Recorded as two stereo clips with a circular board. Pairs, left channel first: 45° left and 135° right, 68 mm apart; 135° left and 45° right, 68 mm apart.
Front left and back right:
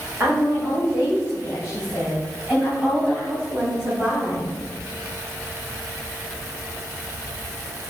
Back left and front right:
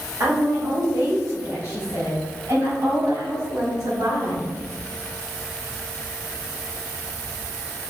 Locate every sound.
0.2 s a woman speaking: 80° right, 3 m; by 4.5 s 55° right, 7 m